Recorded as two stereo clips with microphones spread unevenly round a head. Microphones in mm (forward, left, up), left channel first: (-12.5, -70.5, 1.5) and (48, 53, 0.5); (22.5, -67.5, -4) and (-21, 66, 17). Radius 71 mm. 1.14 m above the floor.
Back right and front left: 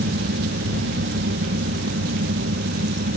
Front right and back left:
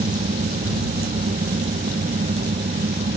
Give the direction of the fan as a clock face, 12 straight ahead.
10 o'clock.